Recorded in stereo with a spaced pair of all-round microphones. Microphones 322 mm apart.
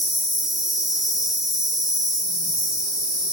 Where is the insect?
55° left (ahead or behind), 1.3 m.